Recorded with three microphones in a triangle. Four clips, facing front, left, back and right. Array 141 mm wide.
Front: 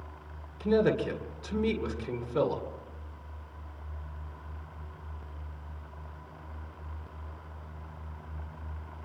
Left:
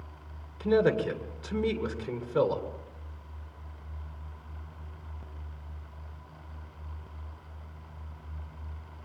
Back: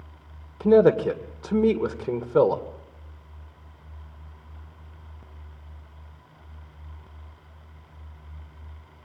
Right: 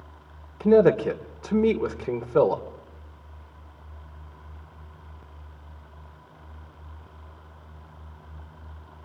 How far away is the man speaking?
About 2.0 m.